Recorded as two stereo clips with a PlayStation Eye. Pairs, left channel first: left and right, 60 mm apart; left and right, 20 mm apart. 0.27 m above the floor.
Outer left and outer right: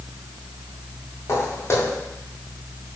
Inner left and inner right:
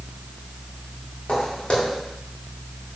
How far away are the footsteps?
About 3.5 m.